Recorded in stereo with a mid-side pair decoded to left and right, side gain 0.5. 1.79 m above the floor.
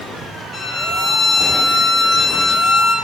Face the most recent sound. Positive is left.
turn(degrees=40)